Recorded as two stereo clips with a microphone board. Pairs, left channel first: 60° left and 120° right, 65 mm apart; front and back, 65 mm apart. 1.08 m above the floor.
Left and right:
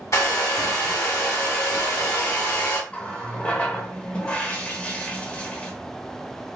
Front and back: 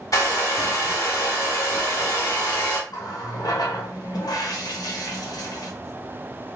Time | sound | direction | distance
0.1 | a hair dryer | 25° left | 1.2 m
2.9 | a running tap | 10° right | 0.7 m